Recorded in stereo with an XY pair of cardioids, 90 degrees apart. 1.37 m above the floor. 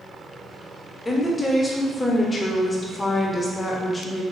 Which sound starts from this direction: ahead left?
A woman speaking, at 1.1 s.